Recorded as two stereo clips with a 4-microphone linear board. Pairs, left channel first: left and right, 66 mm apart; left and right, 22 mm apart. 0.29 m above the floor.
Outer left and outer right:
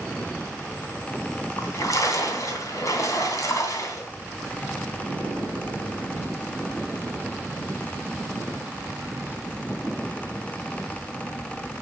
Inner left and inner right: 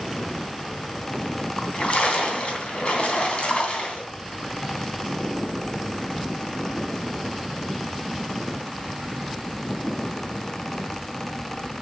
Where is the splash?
55° left (ahead or behind), 2.5 m.